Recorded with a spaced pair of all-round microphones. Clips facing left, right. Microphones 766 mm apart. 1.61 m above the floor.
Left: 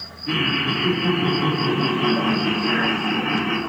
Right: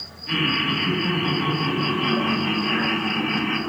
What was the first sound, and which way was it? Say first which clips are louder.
Laughter: left 1 dB; 70° left (ahead or behind).